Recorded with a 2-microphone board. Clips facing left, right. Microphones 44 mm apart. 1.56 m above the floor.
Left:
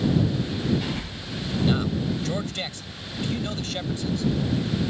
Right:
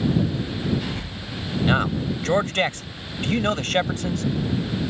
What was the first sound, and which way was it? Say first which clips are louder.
A man speaking: right 4 dB; 45° right (ahead or behind).